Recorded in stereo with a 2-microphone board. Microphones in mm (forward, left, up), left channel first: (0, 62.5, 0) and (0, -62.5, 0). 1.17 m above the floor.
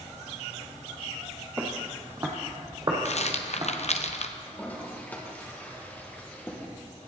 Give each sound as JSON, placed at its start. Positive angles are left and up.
{"t": 1.6, "sound": "footsteps", "side_deg": -15, "distance_m": 1.3}
{"t": 3.0, "sound": "a rattle", "side_deg": 60, "distance_m": 0.6}
{"t": 4.5, "sound": "a toilet flushing", "side_deg": 15, "distance_m": 1.2}